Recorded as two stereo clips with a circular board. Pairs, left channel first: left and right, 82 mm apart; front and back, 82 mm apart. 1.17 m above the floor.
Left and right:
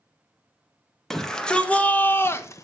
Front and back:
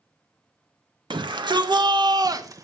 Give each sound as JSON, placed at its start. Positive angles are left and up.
{"t": 1.1, "sound": "a shout", "azimuth_deg": 175, "distance_m": 1.9}